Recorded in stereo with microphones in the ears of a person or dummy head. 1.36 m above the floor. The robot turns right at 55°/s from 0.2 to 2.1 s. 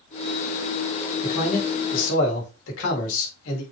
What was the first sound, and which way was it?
A man speaking, 25° left.